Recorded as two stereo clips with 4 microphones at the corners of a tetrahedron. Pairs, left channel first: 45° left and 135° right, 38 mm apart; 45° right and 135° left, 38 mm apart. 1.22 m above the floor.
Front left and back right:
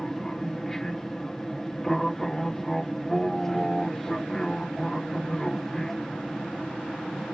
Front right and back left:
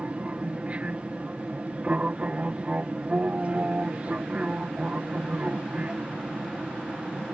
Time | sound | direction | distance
0.0 | an aircraft | 115° left | ?